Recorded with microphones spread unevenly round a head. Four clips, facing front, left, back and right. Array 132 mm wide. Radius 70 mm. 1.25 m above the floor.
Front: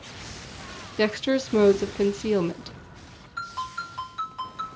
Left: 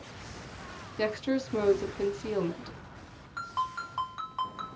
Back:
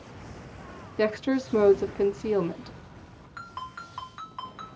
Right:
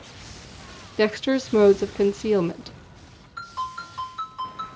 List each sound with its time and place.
1.0 s a woman speaking: 45° right, 0.6 m
3.4 s a ringtone: 105° left, 1.8 m